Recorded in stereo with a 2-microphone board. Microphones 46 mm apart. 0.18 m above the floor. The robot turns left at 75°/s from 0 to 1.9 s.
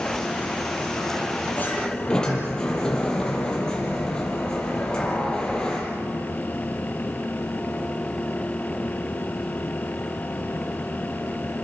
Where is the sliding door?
40° left (ahead or behind), 5.5 m; by 5.9 s 15° left (ahead or behind), 5.5 m.